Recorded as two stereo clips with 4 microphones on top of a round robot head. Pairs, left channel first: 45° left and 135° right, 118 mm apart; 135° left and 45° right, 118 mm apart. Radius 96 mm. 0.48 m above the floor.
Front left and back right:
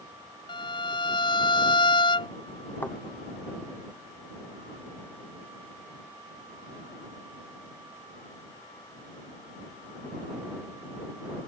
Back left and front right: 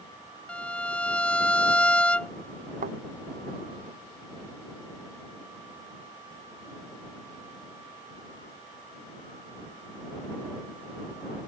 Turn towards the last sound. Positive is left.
turn(degrees=-30)